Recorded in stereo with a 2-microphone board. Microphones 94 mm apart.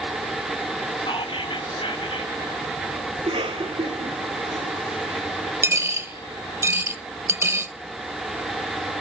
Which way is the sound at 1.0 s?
60° left (ahead or behind).